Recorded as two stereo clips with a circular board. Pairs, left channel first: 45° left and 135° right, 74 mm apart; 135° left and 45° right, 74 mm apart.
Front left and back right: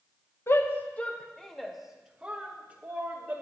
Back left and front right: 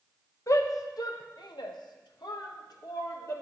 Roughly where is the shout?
Left.